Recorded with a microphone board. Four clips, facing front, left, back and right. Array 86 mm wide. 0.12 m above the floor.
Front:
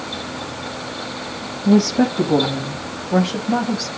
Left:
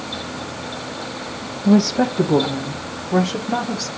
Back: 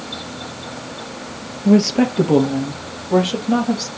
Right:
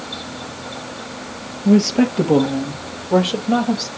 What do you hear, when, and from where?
1.6 s a woman speaking: 145° right, 2.5 m; by 3.9 s 110° right, 4 m